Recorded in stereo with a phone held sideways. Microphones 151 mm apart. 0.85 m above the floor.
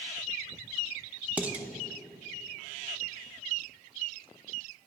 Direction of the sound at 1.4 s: 10° right (ahead or behind).